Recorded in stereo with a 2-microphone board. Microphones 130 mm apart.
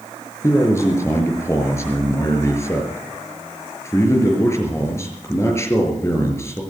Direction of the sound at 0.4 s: 20° left (ahead or behind).